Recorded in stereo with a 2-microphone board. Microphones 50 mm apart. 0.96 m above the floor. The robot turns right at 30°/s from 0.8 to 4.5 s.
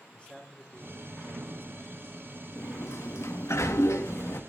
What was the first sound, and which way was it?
A man speaking, 20° left.